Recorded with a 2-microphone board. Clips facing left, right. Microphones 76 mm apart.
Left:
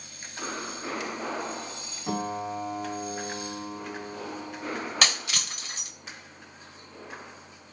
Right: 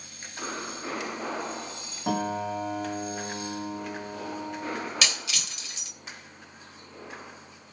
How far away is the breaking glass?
About 3 m.